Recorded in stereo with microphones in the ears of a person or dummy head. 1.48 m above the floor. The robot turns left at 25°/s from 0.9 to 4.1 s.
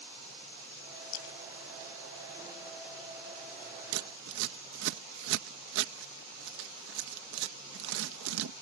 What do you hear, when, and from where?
1.1 s a splash: 70° left (ahead or behind); by 2.9 s 65° left (ahead or behind)
3.9 s scissors: 80° right; by 8.5 s 75° right (ahead or behind)